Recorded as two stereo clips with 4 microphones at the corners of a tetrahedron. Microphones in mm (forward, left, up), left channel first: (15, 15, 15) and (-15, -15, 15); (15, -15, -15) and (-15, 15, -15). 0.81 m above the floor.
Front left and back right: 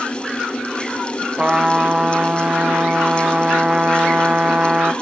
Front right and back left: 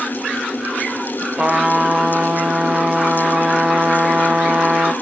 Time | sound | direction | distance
1.4 | a trumpet | 175° left | 0.6 m